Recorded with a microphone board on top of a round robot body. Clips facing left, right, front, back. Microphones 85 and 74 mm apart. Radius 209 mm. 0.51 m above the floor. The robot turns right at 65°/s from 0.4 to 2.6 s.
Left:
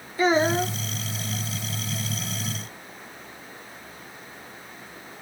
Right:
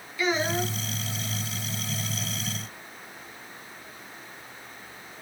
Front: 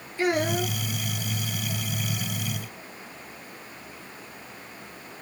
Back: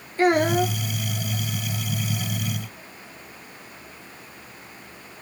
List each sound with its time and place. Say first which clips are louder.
0.2 s a child speaking: left 6 dB, back 6 dB; 140° left, 1.1 m; by 0.8 s 160° left, 1.1 m